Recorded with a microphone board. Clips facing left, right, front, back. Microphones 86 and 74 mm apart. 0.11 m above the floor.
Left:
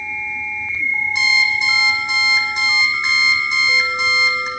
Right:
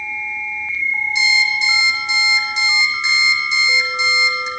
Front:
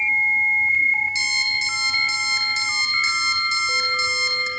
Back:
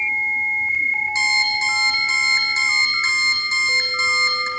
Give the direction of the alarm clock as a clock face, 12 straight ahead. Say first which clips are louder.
Even, back 4 dB; 8 o'clock.